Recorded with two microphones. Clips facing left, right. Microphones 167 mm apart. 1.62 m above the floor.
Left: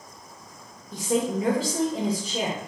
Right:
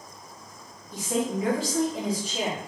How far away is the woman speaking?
About 1.8 m.